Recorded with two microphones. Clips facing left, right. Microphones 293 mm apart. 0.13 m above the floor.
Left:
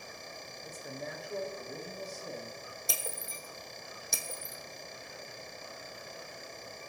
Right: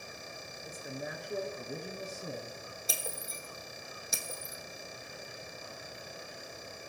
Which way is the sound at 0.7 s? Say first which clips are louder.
Right 1 dB; centre (ahead or behind).